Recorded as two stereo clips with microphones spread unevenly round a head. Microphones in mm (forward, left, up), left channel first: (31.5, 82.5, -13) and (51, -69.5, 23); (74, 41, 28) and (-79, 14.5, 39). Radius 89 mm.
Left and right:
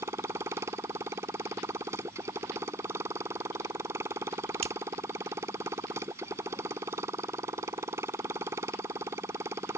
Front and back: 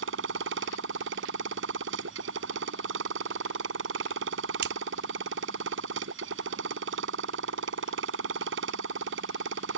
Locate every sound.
0.0 s a motorcycle: 155° right
4.6 s scissors: 140° right